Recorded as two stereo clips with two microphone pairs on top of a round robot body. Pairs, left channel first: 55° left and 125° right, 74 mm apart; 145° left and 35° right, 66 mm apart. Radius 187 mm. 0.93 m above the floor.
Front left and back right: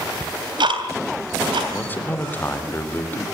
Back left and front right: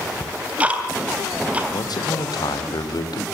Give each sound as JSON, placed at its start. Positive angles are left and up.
{"t": 0.2, "sound": "ticking", "azimuth_deg": -110, "distance_m": 3.0}
{"t": 1.7, "sound": "a man speaking", "azimuth_deg": 125, "distance_m": 3.5}